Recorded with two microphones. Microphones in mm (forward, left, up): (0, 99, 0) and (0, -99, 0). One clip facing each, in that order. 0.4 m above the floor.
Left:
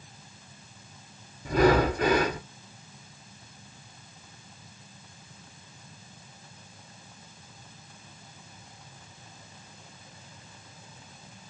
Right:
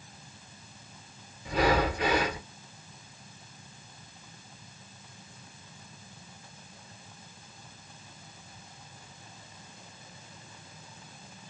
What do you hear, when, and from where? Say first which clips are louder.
1.4 s breathing: left 5 dB; 50° left (ahead or behind), 1.5 m